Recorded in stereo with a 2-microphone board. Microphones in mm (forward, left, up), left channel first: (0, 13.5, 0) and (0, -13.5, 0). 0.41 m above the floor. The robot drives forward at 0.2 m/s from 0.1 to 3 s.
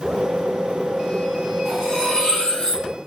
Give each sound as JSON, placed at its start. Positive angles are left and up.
{"t": 1.6, "sound": "cutlery clinking", "side_deg": 30, "distance_m": 0.9}